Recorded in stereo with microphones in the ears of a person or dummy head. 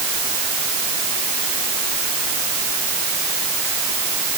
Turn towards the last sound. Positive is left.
No sound to turn to.